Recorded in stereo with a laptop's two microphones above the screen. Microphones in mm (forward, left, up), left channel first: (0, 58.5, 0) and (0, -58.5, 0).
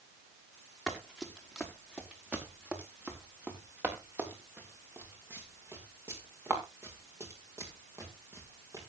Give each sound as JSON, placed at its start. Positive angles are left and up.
{"t": 0.9, "sound": "running footsteps", "side_deg": 0, "distance_m": 4.5}